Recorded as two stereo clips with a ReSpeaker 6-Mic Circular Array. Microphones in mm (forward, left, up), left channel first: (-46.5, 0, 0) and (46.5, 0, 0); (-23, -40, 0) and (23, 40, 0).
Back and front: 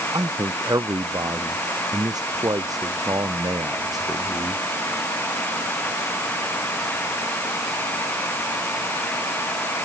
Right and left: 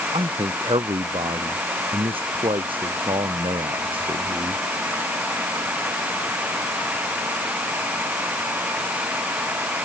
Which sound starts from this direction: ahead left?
A man speaking, at 0.1 s.